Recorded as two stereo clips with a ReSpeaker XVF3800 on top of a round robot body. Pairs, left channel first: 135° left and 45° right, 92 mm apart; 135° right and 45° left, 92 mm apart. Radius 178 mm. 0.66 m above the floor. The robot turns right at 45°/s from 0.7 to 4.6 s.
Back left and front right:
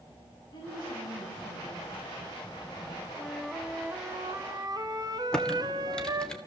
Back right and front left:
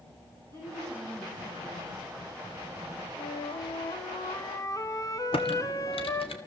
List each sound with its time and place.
0.5 s a woman speaking: 90° left, 5.5 m; by 2.0 s 150° left, 5.5 m
3.2 s a flute: 150° right, 1.7 m; by 6.3 s 85° right, 1.7 m
5.3 s typing on a keyboard: 145° right, 2.5 m